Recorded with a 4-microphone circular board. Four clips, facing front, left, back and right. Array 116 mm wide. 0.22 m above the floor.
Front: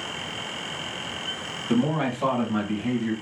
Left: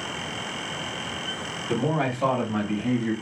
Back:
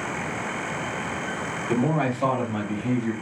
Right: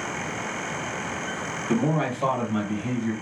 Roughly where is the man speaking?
Behind right.